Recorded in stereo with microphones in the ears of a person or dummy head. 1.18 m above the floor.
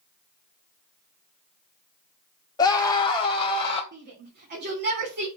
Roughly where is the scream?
Centre.